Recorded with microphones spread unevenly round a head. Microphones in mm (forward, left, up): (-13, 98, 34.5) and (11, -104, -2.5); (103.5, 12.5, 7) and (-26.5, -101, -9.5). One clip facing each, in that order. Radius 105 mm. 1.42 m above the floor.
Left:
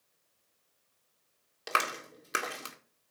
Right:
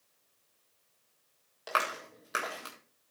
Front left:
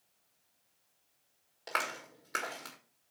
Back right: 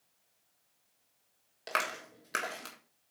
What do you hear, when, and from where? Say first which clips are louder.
1.7 s a clap: even, back right 2 dB; 155° left, 1.6 m